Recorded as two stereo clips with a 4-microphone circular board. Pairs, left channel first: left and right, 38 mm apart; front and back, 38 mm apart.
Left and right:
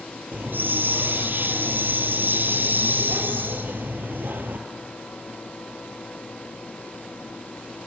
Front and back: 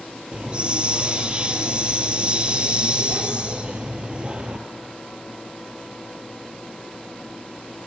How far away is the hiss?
About 1.7 m.